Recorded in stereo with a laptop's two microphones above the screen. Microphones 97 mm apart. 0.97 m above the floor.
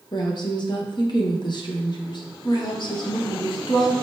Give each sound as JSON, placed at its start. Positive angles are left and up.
{"t": 0.1, "sound": "a woman speaking", "side_deg": 50, "distance_m": 0.6}